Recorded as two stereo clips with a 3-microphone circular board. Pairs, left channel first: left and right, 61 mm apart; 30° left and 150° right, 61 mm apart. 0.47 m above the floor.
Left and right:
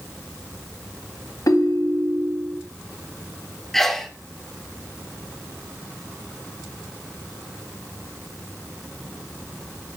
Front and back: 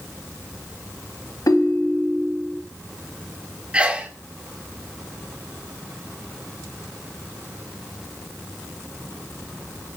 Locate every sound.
1.5 s a ringtone: 55° left, 1.5 m
3.7 s a sneeze: 170° left, 1.3 m